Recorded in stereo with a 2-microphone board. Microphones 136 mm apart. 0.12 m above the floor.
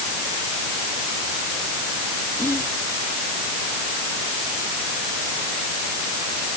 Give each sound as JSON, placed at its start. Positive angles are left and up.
{"t": 2.4, "sound": "whispering", "side_deg": 20}